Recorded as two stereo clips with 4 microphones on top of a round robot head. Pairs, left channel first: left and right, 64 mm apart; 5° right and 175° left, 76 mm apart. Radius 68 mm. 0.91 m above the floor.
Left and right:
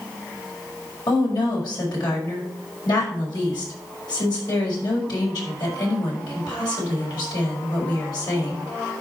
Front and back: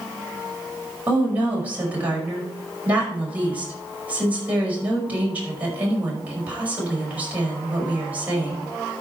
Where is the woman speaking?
105° left, 5 m.